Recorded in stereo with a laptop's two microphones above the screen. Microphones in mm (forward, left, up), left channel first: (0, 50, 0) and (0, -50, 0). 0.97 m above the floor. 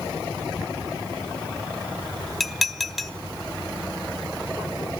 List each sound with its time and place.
2.4 s dishes clattering: centre (ahead or behind), 1.1 m